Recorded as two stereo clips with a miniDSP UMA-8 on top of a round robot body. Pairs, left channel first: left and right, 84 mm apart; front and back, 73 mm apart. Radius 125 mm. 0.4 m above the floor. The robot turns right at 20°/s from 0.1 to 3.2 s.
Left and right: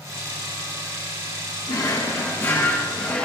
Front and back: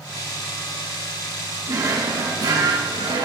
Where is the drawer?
140° left, 2 m; by 3.3 s 170° left, 2 m.